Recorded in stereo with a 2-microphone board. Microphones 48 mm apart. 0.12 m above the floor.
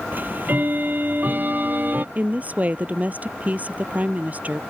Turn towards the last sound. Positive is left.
turn(degrees=-30)  # may be behind; listen again after turning